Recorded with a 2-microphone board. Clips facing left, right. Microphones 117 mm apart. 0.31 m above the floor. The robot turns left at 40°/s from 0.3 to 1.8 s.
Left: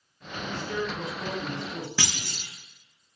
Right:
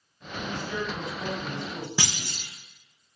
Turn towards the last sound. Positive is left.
turn(degrees=-15)  # may be behind; listen again after turning